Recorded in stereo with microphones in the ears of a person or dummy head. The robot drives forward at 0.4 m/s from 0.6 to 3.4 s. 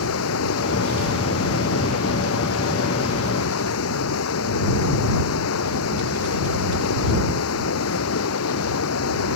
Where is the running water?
75° left (ahead or behind).